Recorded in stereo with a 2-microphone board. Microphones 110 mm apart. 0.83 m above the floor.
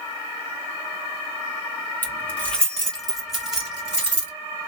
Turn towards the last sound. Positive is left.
turn(degrees=-15)  # may be behind; listen again after turning